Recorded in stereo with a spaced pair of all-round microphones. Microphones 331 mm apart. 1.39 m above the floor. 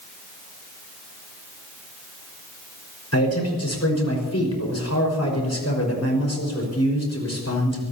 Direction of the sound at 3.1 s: 50° left (ahead or behind).